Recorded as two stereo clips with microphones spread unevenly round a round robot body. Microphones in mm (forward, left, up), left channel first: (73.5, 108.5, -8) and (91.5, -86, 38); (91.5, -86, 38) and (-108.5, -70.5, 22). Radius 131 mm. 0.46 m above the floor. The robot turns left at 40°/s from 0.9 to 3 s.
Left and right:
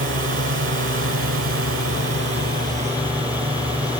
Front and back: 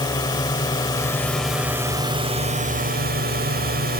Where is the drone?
75° right; by 4.0 s 155° right.